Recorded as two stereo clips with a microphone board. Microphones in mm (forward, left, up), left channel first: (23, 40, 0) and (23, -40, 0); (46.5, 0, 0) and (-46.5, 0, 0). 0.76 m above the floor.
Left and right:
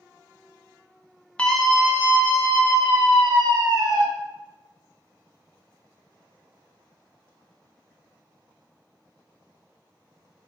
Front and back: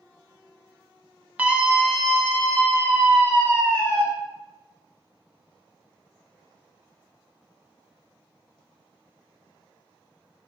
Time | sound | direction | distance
1.4 | a scream | 135° left | 0.6 m